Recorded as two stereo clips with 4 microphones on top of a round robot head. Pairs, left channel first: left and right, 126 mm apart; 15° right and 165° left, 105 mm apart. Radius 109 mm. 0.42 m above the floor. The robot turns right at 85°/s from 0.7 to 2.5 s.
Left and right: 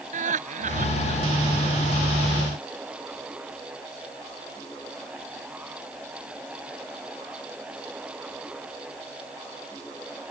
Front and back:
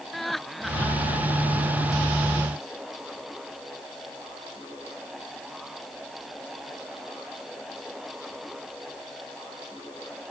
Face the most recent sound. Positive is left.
turn(degrees=50)